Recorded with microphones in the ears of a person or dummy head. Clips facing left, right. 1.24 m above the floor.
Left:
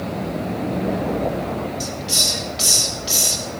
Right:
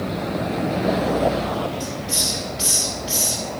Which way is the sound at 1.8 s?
40° left (ahead or behind).